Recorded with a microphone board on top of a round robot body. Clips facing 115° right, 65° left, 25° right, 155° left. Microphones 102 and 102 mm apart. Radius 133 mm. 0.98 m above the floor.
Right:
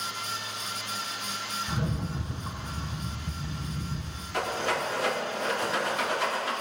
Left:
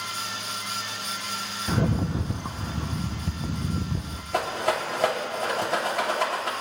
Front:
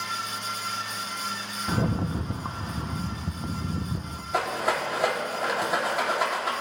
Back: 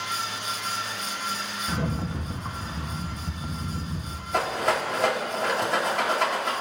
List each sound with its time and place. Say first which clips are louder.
1.7 s a rattle: left 9 dB, front 4 dB; 40° left, 0.5 m
4.3 s a rattle: left 3 dB, back 1 dB; 60° left, 3 m